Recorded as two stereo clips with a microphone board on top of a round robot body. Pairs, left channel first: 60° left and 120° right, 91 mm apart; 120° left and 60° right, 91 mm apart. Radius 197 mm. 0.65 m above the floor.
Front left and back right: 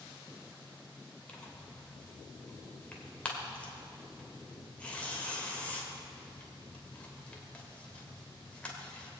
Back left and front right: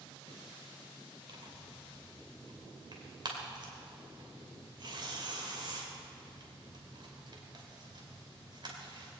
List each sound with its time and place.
1.3 s tearing paper: 15° right, 2.5 m